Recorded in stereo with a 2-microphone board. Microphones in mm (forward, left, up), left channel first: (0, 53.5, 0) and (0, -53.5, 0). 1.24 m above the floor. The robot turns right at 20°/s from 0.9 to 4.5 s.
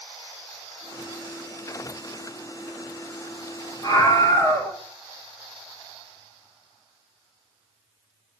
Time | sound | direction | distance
3.8 | a scream | 40° left (ahead or behind) | 3.5 m